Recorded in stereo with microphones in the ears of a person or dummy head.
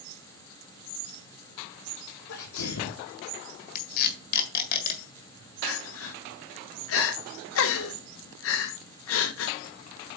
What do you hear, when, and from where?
2.3 s a sneeze: 75° left (ahead or behind), 1.4 m
3.8 s tape being pulled: 50° left (ahead or behind), 1.6 m
5.6 s crying: 70° left (ahead or behind), 0.9 m